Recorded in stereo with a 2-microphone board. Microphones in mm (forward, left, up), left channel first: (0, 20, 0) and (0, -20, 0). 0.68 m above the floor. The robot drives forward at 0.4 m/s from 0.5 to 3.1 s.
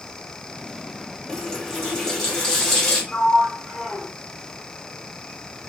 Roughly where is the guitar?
No guitar in this recording.